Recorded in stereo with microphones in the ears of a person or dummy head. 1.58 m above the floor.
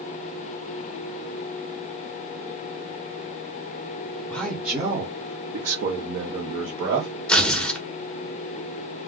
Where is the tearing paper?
5° left (ahead or behind), 0.9 m.